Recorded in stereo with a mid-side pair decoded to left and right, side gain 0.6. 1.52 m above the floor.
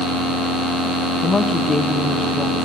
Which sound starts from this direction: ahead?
A woman speaking, at 1.2 s.